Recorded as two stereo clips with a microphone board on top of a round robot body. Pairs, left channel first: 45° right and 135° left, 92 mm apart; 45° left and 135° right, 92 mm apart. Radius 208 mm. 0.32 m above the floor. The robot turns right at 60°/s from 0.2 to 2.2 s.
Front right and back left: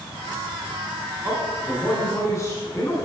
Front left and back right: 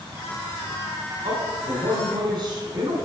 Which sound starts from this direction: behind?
A man speaking, at 1.2 s.